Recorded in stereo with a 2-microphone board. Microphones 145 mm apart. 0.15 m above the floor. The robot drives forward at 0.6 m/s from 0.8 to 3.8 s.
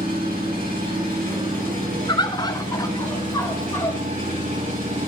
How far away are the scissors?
I don't hear scissors.